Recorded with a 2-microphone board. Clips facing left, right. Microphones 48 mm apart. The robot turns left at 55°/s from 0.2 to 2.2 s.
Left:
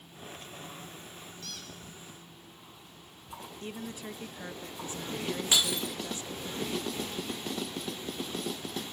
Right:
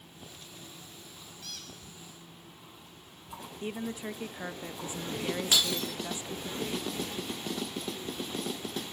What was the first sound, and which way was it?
A squeak, 5° right (ahead or behind).